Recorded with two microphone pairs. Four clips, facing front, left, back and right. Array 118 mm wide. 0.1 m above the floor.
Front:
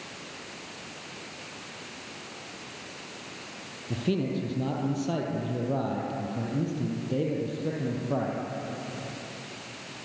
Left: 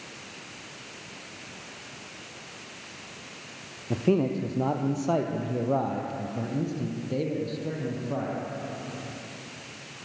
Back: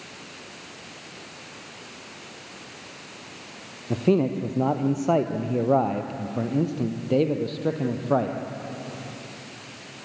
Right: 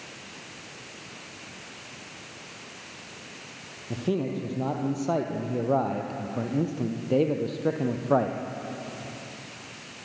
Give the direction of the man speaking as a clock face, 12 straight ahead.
7 o'clock.